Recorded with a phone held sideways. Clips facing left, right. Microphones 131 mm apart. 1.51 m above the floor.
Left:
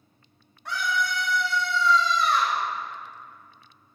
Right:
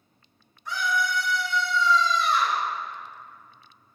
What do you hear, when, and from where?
0.7 s a scream: 65° left (ahead or behind), 2.5 m; by 2.6 s 60° left (ahead or behind), 4.5 m